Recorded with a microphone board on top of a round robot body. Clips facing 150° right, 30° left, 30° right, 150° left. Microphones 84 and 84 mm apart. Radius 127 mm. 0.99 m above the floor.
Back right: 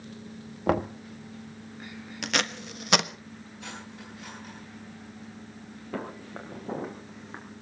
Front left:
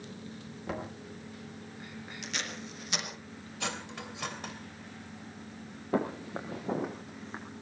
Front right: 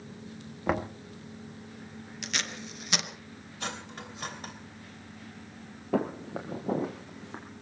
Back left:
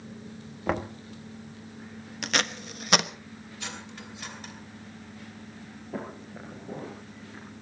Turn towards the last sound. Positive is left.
turn(degrees=-65)